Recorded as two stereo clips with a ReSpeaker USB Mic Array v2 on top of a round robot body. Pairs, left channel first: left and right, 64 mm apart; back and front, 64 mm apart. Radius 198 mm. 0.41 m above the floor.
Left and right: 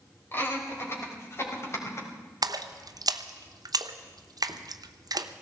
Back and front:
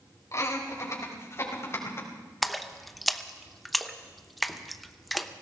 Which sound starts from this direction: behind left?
Laughter, at 0.3 s.